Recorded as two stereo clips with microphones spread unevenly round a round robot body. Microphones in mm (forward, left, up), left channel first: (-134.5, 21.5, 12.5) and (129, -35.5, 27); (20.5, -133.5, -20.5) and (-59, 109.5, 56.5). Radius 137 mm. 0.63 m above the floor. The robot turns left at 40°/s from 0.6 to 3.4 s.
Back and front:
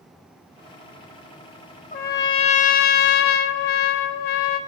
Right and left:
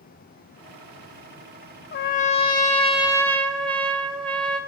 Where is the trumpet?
130° right, 0.6 m; by 4.6 s 170° left, 0.6 m.